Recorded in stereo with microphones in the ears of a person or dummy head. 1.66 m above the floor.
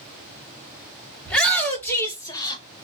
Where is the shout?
10° left (ahead or behind), 1.8 m; by 2.6 s 25° left (ahead or behind), 1.3 m.